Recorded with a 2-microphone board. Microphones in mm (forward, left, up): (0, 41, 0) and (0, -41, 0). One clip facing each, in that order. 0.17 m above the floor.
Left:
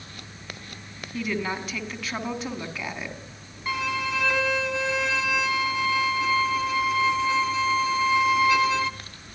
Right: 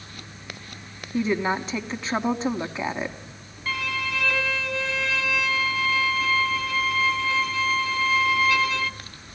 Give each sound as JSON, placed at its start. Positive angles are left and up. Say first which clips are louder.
{"t": 1.1, "sound": "a woman speaking", "louder": "right 5 dB", "side_deg": -25, "distance_m": 1.2}
{"t": 3.7, "sound": "a violin", "louder": "left 2 dB", "side_deg": 20, "distance_m": 0.8}